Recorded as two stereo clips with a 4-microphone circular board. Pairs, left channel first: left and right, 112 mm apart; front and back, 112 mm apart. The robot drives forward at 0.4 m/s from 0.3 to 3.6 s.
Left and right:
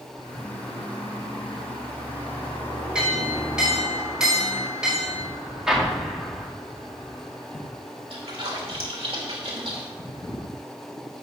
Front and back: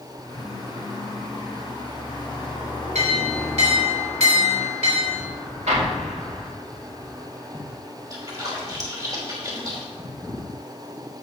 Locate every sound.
3.0 s a clink: 170° right, 4.5 m
5.7 s an explosion: 175° right, 2.5 m
8.1 s a splash: 120° right, 3 m